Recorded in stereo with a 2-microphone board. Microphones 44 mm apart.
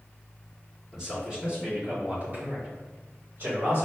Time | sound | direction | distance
0.9 | a man speaking | 15° right (ahead or behind) | 1.6 m